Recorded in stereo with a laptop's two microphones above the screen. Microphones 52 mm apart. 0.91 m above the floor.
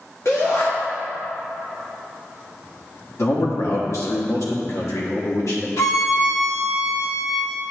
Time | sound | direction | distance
0.2 | a shout | 65° left (ahead or behind) | 1.4 m
3.2 | a man speaking | 70° left (ahead or behind) | 1.2 m
5.8 | a violin | 70° left (ahead or behind) | 0.8 m